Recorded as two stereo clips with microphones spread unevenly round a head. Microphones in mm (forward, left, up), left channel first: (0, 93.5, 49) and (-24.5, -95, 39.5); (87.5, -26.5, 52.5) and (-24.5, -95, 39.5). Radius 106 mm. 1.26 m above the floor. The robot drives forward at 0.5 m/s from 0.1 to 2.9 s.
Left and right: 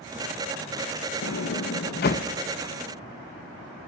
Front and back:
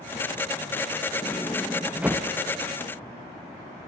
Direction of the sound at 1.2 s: 95° left.